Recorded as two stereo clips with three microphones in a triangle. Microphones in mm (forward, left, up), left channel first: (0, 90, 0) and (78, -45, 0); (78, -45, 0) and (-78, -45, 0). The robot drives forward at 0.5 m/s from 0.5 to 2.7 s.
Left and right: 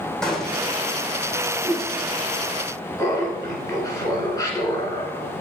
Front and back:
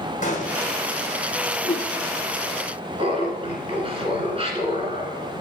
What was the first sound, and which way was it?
A gunshot, 35° left.